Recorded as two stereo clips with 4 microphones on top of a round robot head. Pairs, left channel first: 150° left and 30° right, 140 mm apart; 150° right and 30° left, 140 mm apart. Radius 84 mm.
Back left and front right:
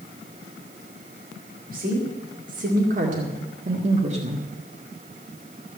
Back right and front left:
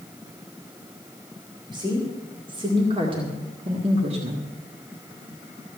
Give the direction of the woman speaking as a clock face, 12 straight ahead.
1 o'clock.